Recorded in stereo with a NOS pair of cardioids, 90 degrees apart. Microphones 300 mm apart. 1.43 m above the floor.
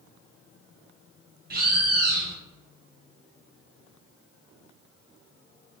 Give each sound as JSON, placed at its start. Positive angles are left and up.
{"t": 1.5, "sound": "a bird", "azimuth_deg": -30, "distance_m": 0.8}